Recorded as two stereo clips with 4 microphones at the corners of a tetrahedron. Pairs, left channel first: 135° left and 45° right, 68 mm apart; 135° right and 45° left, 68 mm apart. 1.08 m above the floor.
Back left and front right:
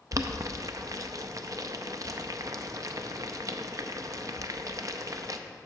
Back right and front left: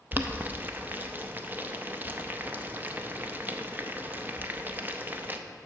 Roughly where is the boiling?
Ahead.